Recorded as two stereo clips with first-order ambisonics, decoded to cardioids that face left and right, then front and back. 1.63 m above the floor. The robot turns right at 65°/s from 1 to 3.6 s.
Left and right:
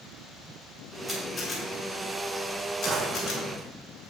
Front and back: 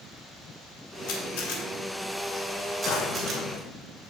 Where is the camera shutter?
15° right, 3 m; by 3.4 s 135° left, 3 m.